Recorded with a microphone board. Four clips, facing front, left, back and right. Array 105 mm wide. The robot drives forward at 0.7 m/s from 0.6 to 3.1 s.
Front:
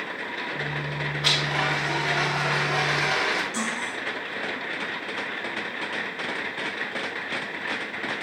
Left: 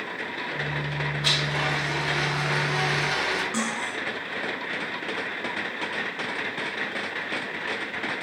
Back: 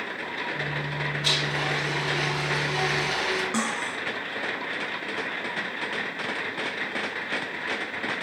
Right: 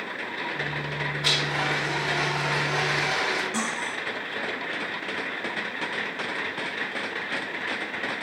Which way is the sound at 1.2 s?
10° right.